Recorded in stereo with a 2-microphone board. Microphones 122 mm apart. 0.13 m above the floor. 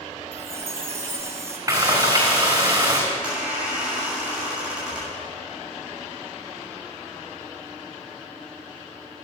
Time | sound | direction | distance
0.3 | a chime | 20° right (ahead or behind) | 1.9 m
1.7 | frying | 25° right (ahead or behind) | 4.5 m
3.1 | a squeak | 10° right (ahead or behind) | 5.5 m